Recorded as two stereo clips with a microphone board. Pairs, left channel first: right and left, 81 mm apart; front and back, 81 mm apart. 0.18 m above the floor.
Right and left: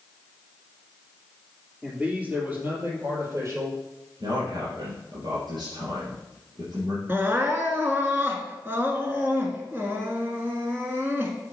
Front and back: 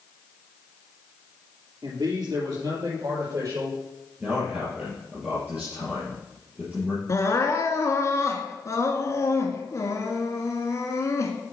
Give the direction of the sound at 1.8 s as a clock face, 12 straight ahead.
6 o'clock.